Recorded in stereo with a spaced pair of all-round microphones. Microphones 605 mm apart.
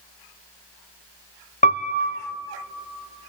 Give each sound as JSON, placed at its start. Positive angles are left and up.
{"t": 1.6, "sound": "a piano", "side_deg": 15, "distance_m": 0.7}